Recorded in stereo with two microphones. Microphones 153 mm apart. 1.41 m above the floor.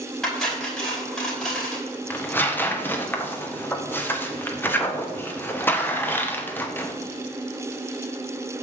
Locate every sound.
0.2 s cutlery clinking: 5° left (ahead or behind), 5 m
2.1 s tearing paper: 15° left (ahead or behind), 1.4 m